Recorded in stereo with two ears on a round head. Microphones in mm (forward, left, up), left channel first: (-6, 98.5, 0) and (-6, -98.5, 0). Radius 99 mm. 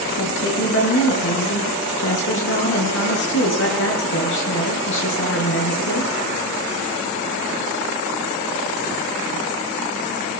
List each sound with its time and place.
0.2 s a woman speaking: 60° left (ahead or behind), 8.5 m